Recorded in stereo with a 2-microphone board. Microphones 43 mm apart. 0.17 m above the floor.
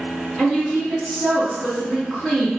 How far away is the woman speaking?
About 1.5 m.